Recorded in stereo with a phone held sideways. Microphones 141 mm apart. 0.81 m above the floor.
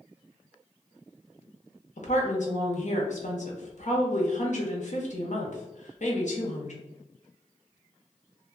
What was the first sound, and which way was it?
A woman speaking, 60° left (ahead or behind).